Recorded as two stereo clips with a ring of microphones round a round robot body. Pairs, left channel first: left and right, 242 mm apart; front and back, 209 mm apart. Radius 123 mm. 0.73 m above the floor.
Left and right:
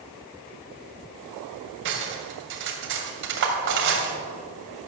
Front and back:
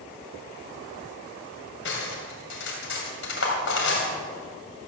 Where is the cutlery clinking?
45° right, 2.5 m.